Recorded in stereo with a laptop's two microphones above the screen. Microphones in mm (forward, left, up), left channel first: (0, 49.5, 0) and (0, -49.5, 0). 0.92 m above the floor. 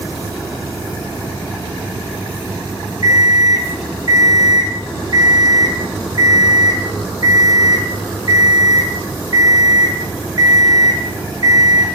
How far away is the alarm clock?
About 0.8 m.